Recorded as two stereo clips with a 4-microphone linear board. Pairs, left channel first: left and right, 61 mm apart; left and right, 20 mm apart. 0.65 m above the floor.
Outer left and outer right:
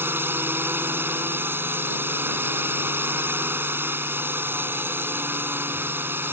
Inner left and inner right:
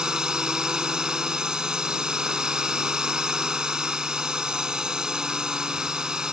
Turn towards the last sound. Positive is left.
turn(degrees=-35)  # may be behind; listen again after turning